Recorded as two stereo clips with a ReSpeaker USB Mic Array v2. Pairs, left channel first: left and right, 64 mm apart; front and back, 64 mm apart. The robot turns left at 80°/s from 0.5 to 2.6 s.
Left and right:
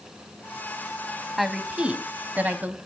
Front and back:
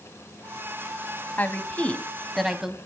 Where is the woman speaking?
5° right, 1.2 m; by 2.8 s 105° right, 1.2 m.